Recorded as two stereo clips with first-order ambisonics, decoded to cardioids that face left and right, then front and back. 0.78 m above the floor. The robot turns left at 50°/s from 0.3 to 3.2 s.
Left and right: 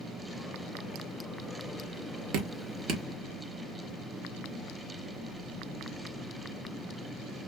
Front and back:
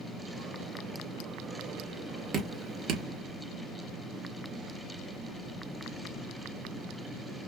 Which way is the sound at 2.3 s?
110° right.